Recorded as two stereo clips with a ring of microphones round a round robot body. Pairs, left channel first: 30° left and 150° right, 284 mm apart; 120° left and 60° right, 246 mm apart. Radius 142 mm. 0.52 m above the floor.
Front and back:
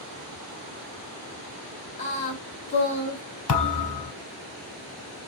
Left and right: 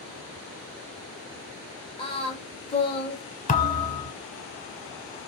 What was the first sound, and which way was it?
Singing, 75° left.